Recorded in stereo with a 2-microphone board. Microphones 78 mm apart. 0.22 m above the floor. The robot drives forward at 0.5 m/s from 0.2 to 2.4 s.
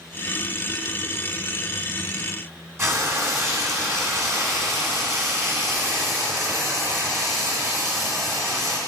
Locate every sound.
2.8 s frying: 35° right (ahead or behind), 1.5 m